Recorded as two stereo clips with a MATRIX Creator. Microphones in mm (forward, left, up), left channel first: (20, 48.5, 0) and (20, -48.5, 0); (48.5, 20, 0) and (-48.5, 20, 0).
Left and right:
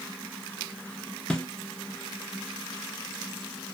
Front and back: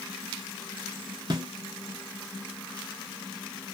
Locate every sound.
1.3 s a snare drum: 170° left, 0.6 m